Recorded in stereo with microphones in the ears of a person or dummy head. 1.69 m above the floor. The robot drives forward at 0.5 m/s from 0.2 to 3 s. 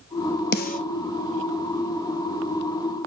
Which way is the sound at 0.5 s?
45° left (ahead or behind).